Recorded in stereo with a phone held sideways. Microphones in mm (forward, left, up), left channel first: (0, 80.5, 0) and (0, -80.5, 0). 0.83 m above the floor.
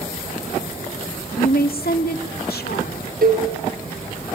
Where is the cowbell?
70° right (ahead or behind), 5 m.